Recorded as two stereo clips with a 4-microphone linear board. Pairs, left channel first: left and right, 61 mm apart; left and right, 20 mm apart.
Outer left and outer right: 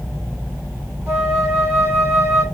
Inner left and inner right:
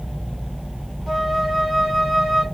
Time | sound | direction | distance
1.1 | a flute | 35° right (ahead or behind) | 2 m